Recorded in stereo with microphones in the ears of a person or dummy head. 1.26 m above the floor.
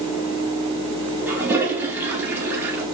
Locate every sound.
1.3 s a toilet flushing: 10° right (ahead or behind), 3 m